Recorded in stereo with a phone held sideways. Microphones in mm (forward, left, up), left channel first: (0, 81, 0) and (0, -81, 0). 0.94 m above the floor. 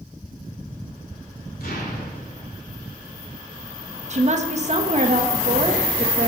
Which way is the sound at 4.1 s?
50° right (ahead or behind).